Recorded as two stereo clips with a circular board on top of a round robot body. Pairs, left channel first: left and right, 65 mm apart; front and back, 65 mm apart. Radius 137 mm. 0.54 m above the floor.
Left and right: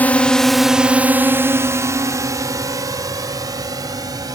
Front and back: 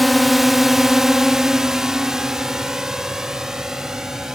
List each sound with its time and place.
0.0 s a drone: 95° left; by 4.3 s 95° right